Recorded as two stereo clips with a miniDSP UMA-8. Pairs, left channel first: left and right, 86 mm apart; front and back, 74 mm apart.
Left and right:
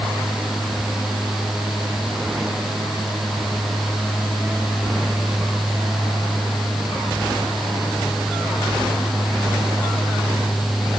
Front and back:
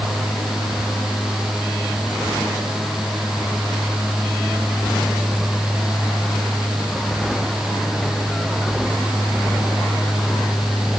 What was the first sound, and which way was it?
Only background noise.